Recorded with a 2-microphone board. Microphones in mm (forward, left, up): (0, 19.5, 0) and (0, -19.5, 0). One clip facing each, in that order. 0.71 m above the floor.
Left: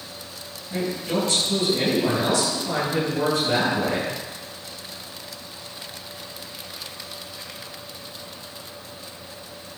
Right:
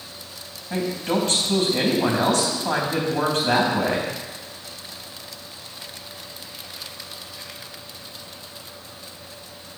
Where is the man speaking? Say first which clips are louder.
Right 2 dB; 75° right (ahead or behind), 4.5 m.